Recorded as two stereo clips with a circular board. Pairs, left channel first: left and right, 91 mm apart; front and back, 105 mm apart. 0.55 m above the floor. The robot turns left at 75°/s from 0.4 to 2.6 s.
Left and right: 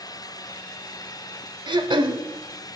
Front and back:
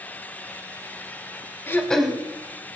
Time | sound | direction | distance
1.7 | throat clearing | 65° right | 0.5 m